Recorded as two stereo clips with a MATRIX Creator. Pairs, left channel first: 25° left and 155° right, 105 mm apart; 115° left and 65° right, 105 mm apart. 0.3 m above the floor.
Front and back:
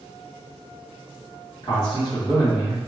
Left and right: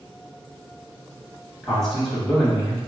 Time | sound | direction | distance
1.6 | a man speaking | 30° left | 1.4 m